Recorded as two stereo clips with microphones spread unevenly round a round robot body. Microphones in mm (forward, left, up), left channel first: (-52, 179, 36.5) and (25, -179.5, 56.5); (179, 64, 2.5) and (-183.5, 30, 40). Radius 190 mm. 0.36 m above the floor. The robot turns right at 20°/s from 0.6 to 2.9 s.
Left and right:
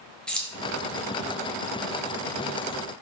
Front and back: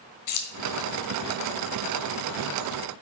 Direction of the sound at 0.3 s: 15° left.